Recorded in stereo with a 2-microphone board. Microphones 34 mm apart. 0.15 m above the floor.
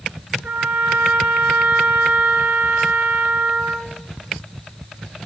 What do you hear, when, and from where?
0.4 s a trumpet: 60° right (ahead or behind), 0.6 m